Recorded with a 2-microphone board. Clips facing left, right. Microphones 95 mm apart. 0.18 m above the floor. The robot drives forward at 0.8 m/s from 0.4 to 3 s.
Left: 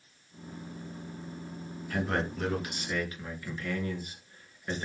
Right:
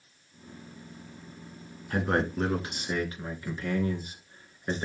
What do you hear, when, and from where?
1.9 s a man speaking: 35° right (ahead or behind), 2.5 m; by 4.8 s 30° right (ahead or behind), 3 m